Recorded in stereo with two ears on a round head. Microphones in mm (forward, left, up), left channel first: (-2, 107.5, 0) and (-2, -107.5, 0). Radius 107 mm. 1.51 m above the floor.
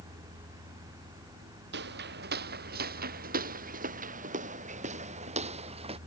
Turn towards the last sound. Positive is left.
turn(degrees=-25)  # may be behind; listen again after turning